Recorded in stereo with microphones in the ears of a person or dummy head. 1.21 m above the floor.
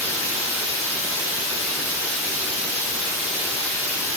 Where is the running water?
10° right (ahead or behind), 1.0 m.